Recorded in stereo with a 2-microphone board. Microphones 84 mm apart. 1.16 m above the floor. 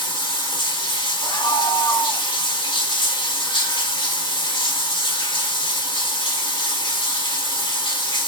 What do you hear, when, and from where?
0.0 s running water: 65° left (ahead or behind), 1.7 m
1.2 s a scream: 60° left (ahead or behind), 2.0 m